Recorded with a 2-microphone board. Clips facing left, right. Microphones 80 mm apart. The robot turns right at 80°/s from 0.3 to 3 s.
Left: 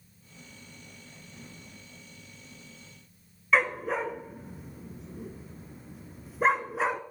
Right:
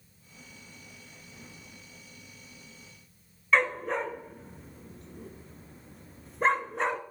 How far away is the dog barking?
About 1.0 m.